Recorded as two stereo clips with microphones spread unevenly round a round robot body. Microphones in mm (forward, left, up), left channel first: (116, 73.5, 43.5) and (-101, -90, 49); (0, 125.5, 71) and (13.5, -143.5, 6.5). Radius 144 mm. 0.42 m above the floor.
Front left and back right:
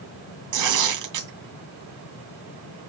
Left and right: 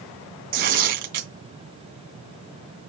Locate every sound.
0.5 s tearing paper: 140° right, 2.5 m